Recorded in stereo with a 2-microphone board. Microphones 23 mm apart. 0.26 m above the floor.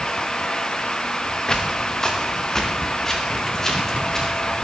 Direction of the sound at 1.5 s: 30° left (ahead or behind).